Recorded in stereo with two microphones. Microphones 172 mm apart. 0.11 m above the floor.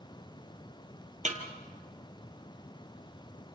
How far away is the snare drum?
About 2.5 m.